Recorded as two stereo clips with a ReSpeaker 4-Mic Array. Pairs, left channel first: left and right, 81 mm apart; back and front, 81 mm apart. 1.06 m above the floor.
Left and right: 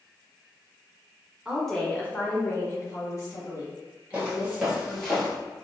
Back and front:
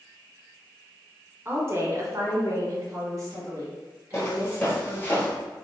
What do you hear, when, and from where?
1.4 s a woman speaking: 20° right, 0.6 m; by 5.1 s 55° left, 2 m
4.1 s footsteps: 145° right, 1.2 m; by 5.3 s 155° left, 1.1 m